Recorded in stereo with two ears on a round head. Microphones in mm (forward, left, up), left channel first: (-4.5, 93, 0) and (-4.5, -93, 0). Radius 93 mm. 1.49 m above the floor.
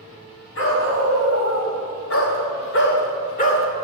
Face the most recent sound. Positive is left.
turn(degrees=35)  # may be behind; listen again after turning